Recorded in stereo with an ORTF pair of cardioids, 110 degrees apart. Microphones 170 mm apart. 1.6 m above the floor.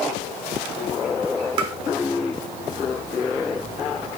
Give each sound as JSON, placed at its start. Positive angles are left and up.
{"t": 1.6, "sound": "tapping", "azimuth_deg": -35, "distance_m": 3.0}